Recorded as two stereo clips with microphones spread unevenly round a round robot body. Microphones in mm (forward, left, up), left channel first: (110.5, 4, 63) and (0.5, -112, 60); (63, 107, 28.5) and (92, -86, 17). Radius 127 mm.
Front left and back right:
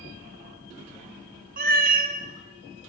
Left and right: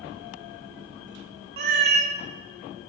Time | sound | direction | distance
1.6 | a cat meowing | 120° right | 0.5 m